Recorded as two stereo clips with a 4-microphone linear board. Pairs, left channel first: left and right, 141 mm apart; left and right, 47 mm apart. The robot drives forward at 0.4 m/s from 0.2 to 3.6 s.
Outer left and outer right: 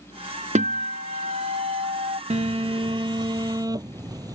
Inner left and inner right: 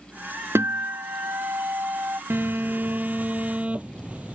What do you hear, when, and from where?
0.6 s a guitar: 60° right (ahead or behind); by 2.2 s 50° right (ahead or behind)
2.3 s a phone buzzing: 50° right (ahead or behind); by 4.4 s 25° right (ahead or behind)